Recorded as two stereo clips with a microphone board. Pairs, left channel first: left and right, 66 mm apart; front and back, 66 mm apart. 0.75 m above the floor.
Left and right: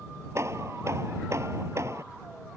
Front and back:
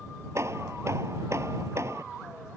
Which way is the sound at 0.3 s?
135° right.